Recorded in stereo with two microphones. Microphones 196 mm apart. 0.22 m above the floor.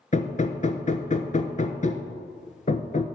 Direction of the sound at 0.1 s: 40° left (ahead or behind).